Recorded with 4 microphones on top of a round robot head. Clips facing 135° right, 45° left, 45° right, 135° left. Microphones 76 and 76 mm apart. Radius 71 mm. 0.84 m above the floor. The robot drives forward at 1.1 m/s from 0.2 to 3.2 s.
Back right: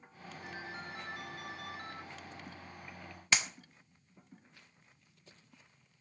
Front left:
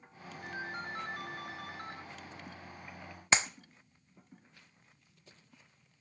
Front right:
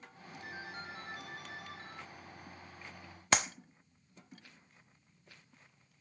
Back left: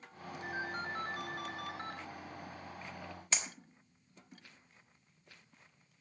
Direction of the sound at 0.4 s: 80° left.